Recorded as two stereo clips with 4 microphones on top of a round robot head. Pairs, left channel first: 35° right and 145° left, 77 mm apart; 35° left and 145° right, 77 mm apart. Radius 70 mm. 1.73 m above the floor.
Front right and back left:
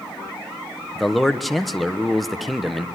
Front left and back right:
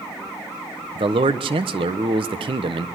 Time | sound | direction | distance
0.9 | a man speaking | 125° right | 1.2 m